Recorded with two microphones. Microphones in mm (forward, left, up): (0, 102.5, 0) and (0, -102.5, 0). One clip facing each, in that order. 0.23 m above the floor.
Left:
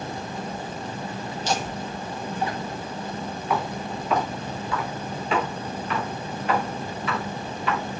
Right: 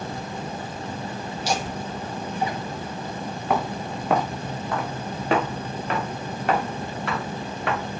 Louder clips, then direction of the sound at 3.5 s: Right 2 dB; 60° right (ahead or behind).